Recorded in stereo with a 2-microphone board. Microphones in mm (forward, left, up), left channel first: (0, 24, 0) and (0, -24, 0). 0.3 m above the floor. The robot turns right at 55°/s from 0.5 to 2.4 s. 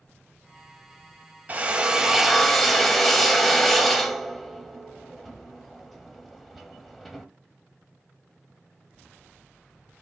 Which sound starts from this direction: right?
A drill, at 1.5 s.